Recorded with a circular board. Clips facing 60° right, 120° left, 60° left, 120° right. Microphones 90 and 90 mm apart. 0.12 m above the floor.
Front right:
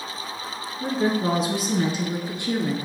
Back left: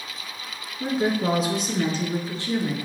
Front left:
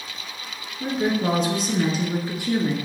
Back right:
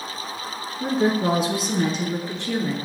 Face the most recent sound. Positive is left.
turn(degrees=-5)